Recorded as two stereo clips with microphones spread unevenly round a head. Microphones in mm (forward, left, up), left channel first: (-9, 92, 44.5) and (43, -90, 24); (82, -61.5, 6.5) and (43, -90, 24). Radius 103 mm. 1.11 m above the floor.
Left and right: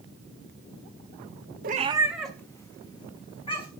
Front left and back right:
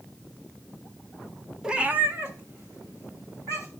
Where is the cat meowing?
105° right, 0.6 m; by 3.7 s 170° left, 2.5 m.